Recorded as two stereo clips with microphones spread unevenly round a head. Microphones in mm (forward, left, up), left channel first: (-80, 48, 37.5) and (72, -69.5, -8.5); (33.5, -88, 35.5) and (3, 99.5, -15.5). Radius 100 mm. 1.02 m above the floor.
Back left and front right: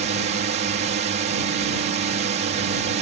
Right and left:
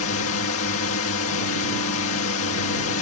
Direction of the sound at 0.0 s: 75° right.